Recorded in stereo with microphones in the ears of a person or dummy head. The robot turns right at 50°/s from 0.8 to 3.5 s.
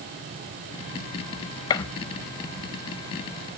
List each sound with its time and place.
1.7 s a gunshot: 20° left (ahead or behind), 0.5 m; by 1.8 s 15° left (ahead or behind), 0.5 m